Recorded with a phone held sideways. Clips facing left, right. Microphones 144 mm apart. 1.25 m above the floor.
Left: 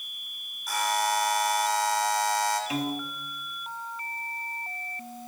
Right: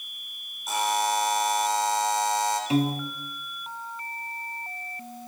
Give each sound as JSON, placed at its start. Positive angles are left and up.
{"t": 0.7, "sound": "a buzzer", "side_deg": -25, "distance_m": 4.0}
{"t": 2.7, "sound": "a piano", "side_deg": -30, "distance_m": 1.0}